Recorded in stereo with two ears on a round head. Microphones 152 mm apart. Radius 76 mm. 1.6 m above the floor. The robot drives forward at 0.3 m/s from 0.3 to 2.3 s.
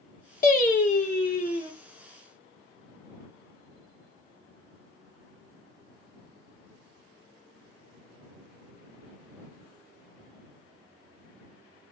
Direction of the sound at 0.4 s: 55° left (ahead or behind).